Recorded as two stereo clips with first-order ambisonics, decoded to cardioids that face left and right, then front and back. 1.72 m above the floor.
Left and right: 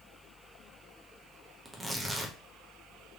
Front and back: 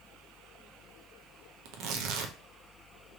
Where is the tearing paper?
Straight behind, 0.5 m.